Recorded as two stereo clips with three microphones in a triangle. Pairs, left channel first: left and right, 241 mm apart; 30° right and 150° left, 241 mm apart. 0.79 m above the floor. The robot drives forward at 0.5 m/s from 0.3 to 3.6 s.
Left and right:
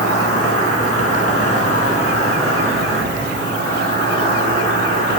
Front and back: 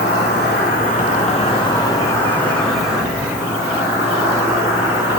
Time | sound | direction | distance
0.0 | an insect | 75° right | 1.5 m